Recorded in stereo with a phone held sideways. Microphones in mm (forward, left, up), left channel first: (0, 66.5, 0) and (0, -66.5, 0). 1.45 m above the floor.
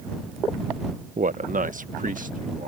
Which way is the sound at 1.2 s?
70° right (ahead or behind).